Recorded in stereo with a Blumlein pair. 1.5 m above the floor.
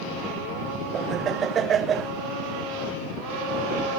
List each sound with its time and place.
0.9 s laughter: 25° right